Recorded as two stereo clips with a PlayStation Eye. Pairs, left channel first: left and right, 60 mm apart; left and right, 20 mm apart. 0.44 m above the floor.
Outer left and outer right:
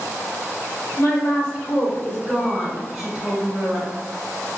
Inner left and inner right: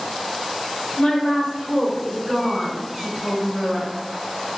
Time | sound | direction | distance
1.0 | a woman speaking | 45° left (ahead or behind) | 1.3 m